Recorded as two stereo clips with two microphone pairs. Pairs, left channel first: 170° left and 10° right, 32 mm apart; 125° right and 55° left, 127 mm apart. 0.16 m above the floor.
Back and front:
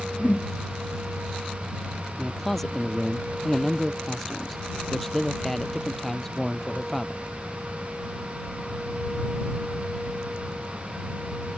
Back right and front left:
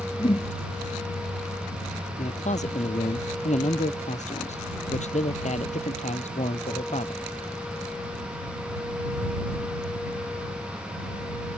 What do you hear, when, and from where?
0.2 s a whoosh: 165° right
2.2 s a man speaking: 110° right